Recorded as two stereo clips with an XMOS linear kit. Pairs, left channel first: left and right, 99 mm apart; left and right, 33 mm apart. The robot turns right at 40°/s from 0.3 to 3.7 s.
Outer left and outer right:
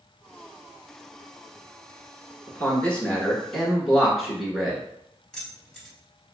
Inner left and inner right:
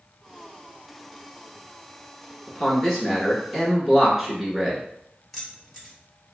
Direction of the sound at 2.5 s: 15° left (ahead or behind).